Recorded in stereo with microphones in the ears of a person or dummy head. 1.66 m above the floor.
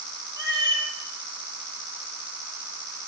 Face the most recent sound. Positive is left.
turn(degrees=-15)  # may be behind; listen again after turning